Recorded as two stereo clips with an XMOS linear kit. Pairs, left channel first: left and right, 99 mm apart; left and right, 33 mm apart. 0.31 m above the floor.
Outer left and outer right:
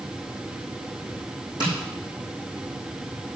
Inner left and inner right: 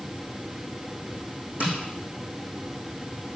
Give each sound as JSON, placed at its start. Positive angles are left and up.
{"t": 1.6, "sound": "tapping", "side_deg": -50, "distance_m": 5.0}